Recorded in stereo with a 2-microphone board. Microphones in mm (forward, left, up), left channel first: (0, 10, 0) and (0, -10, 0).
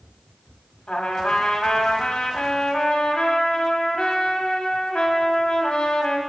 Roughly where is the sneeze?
I don't hear a sneeze.